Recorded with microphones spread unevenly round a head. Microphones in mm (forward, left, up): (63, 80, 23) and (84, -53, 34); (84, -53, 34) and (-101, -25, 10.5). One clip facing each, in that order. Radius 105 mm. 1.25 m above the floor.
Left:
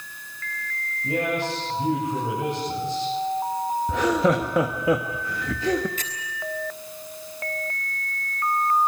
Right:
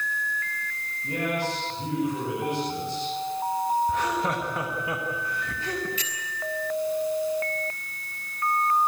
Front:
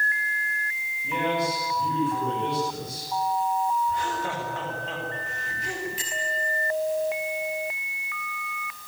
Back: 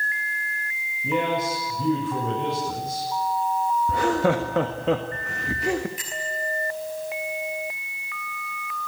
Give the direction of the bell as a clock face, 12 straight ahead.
10 o'clock.